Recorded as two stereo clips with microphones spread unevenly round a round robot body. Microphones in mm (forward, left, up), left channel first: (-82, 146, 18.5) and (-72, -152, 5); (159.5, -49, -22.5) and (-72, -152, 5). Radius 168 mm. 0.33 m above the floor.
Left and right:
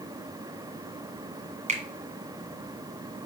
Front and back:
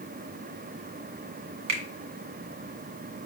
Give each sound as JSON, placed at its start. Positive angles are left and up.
{"t": 1.7, "sound": "a finger snap", "azimuth_deg": -155, "distance_m": 2.0}